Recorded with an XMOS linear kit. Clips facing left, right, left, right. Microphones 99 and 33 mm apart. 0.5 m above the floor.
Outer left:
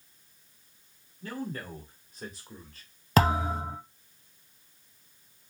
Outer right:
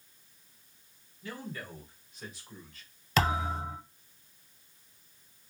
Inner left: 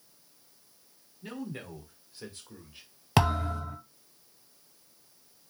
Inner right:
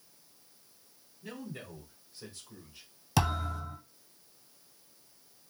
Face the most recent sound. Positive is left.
turn(degrees=45)  # may be behind; listen again after turning